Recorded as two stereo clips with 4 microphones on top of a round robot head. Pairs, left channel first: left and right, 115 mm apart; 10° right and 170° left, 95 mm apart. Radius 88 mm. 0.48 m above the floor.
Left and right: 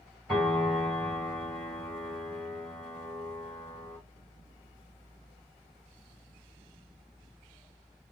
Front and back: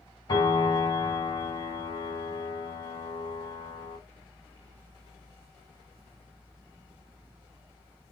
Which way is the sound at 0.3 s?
5° left.